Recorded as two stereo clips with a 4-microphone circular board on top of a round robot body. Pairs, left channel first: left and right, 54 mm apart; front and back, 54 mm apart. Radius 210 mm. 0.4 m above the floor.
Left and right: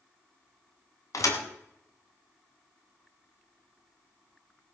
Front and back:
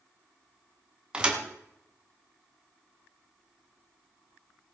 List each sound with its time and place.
1.1 s a thud: 105° left, 2.0 m